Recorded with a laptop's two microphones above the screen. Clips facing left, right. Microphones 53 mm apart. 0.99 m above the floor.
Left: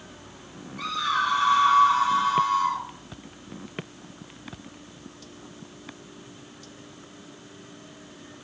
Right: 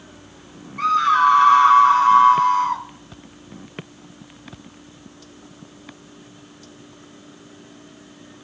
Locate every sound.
0.8 s a scream: 55° right (ahead or behind), 2 m